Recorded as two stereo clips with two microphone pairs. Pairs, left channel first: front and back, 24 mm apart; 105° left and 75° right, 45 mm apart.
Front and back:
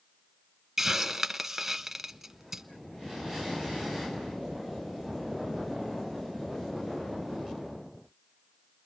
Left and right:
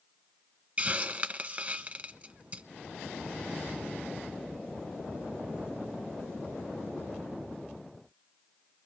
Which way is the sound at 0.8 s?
115° right.